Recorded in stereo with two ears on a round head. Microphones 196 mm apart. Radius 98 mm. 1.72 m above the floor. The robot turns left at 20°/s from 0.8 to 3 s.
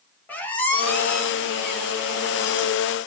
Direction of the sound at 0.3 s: 5° left (ahead or behind).